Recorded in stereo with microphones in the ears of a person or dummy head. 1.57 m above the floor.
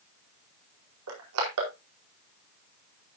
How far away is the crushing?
About 4.5 m.